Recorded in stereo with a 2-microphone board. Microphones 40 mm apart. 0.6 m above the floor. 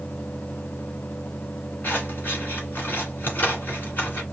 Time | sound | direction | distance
1.8 | scissors | 45° left (ahead or behind) | 1.9 m